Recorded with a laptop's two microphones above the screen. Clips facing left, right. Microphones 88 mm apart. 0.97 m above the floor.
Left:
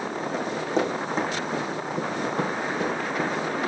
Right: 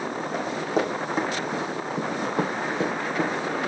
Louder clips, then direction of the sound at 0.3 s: Even; 5° right (ahead or behind).